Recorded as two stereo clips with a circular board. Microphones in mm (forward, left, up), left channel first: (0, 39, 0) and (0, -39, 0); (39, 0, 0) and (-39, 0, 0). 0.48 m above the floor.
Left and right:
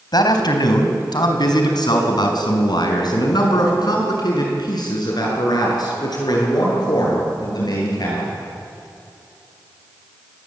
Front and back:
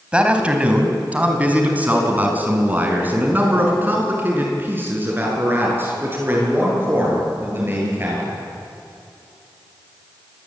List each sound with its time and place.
0.1 s a man speaking: 105° left, 3.5 m; by 8.3 s 120° left, 11 m